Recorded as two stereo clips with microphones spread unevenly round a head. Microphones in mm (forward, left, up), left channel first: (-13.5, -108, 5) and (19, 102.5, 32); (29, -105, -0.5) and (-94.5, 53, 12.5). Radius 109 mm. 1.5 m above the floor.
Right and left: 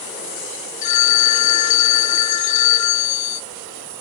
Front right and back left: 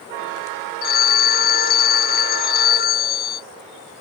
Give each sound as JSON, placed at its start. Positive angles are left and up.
{"t": 0.8, "sound": "a phone ringing", "azimuth_deg": -95}